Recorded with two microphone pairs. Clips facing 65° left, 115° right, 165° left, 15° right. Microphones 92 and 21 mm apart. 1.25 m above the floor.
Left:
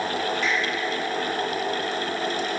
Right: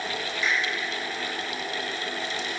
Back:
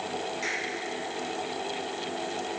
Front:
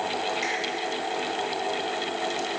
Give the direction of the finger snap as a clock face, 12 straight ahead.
10 o'clock.